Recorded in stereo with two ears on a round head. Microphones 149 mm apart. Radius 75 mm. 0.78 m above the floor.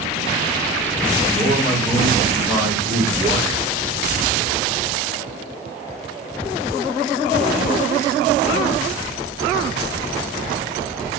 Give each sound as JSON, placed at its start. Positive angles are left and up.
{"t": 1.3, "sound": "a man speaking", "side_deg": -20, "distance_m": 3.0}